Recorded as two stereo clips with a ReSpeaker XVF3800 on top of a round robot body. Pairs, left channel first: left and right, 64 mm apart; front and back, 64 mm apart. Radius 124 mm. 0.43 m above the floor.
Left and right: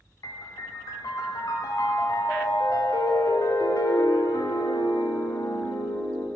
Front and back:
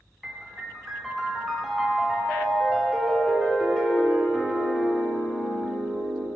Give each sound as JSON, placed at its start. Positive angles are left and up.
{"t": 0.2, "sound": "a piano", "azimuth_deg": 90, "distance_m": 0.7}